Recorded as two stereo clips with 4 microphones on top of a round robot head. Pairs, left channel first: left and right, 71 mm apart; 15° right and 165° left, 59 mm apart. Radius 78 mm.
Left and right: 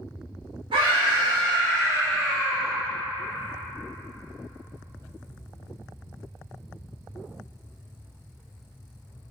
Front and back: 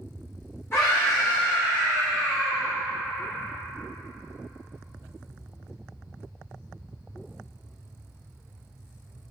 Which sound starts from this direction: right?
A scream, at 0.7 s.